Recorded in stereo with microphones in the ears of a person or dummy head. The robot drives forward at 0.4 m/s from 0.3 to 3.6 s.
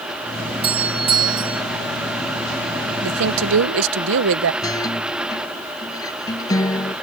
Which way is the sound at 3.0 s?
75° right (ahead or behind).